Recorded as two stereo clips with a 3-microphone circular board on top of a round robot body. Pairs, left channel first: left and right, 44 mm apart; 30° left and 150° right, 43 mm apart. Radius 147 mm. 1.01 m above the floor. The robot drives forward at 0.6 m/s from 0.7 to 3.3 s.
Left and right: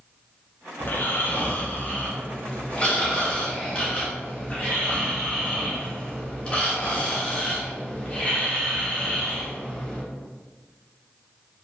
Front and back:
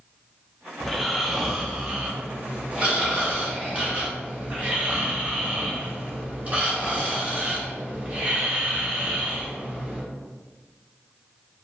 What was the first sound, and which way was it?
Snoring, 110° left.